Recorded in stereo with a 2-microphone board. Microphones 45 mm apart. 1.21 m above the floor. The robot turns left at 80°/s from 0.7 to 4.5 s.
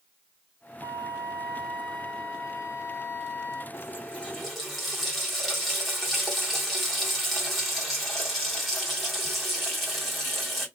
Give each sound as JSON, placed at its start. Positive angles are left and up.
{"t": 0.8, "sound": "a flute", "azimuth_deg": -90, "distance_m": 2.0}
{"t": 3.7, "sound": "a running tap", "azimuth_deg": 60, "distance_m": 1.8}